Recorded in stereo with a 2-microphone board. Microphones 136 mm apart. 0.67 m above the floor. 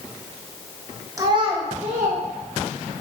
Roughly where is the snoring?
No snoring in this recording.